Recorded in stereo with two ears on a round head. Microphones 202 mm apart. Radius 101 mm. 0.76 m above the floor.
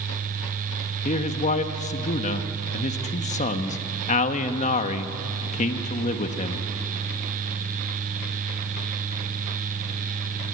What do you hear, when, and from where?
1.1 s a man speaking: 35° left (ahead or behind), 1.2 m